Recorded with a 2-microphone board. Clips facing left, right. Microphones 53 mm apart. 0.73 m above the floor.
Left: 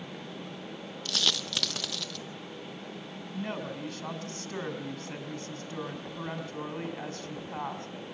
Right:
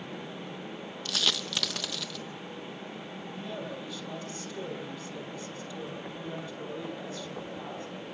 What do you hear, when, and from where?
1.1 s a dropped coin: 5° right (ahead or behind), 1.1 m
3.3 s a woman speaking: 65° left (ahead or behind), 4.5 m